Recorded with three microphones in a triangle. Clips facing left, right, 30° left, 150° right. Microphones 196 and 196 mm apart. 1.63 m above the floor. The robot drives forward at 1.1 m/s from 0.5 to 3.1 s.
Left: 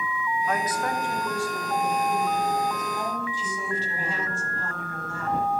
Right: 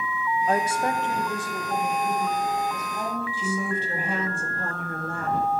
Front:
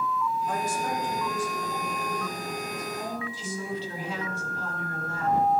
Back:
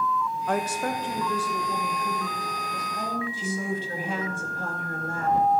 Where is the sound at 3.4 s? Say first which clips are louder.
Right 4 dB, back 3 dB; 115° right, 2 m.